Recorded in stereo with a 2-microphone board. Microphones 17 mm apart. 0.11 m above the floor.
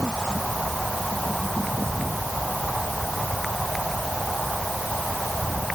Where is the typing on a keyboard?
No typing on a keyboard in this recording.